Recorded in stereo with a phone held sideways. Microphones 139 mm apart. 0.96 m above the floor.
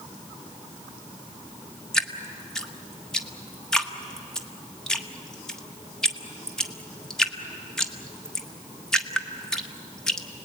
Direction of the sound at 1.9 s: 5° left (ahead or behind).